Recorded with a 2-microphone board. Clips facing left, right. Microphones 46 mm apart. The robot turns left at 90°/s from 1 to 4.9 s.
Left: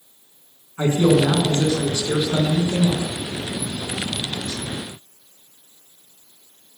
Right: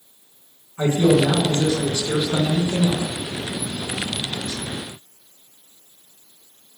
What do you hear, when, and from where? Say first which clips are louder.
0.8 s a man speaking: even; 115° left, 1.4 m; by 3.0 s 70° right, 1.4 m